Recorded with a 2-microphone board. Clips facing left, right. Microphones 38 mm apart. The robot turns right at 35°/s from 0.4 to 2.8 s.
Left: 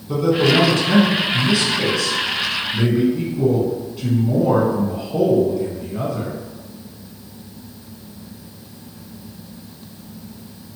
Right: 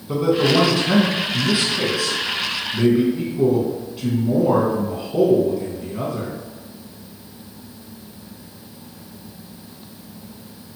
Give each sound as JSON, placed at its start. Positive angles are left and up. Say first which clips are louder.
{"t": 0.1, "sound": "a man speaking", "louder": "left 1 dB", "side_deg": -20, "distance_m": 1.0}